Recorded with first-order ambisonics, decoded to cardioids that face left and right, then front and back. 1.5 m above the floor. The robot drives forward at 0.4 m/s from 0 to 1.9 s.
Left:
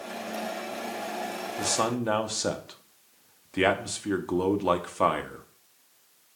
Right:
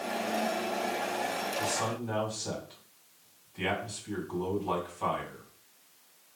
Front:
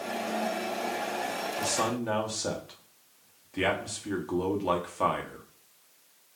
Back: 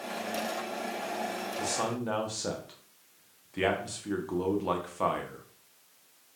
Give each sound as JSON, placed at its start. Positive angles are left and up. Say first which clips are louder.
{"t": 1.6, "sound": "a man speaking", "louder": "left 4 dB, front 2 dB", "azimuth_deg": 80, "distance_m": 1.3}